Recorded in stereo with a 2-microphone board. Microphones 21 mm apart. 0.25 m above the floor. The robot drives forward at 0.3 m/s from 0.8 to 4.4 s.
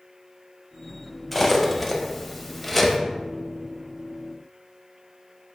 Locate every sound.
1.3 s cutlery clinking: 5° left (ahead or behind), 0.6 m